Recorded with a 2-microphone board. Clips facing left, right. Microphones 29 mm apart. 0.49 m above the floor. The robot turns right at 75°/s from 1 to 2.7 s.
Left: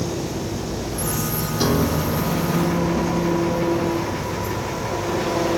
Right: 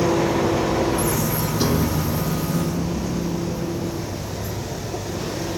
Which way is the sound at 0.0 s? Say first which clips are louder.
Right 7 dB; 70° right.